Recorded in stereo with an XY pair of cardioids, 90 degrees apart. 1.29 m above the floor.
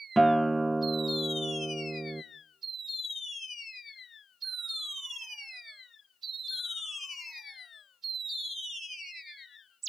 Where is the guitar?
15° right, 0.9 m.